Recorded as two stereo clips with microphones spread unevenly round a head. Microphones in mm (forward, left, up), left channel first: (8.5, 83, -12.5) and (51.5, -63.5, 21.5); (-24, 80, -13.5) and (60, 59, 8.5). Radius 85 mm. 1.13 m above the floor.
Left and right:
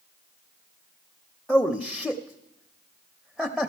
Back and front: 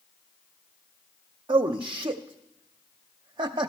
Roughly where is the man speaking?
Ahead.